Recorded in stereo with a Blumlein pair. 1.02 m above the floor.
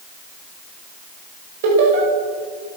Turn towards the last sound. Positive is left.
turn(degrees=-55)